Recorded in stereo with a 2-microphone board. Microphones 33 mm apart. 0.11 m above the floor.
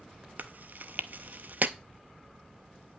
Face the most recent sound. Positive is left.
turn(degrees=-60)  # may be behind; listen again after turning